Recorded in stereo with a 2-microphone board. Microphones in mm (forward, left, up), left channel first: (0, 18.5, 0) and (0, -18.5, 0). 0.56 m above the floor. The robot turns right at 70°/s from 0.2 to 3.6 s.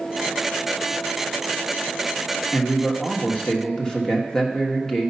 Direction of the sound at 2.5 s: 80° left.